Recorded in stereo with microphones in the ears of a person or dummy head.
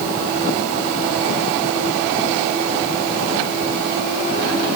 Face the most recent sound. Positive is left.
No sound to turn to.